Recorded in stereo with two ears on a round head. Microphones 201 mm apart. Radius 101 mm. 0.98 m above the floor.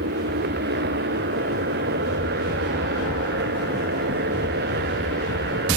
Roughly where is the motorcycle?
Right.